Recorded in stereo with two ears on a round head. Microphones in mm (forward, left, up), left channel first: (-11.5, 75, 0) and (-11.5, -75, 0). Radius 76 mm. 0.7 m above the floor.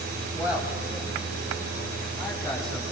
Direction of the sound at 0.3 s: 10° right (ahead or behind).